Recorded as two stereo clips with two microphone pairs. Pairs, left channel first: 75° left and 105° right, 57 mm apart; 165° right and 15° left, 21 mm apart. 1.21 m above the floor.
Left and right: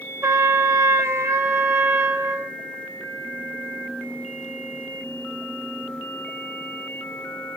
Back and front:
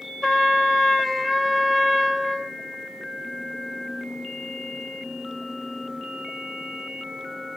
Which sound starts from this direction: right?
A trumpet, at 0.2 s.